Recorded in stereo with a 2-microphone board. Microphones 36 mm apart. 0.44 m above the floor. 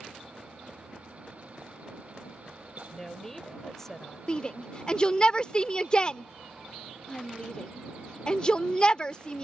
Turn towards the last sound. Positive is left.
turn(degrees=30)  # may be behind; listen again after turning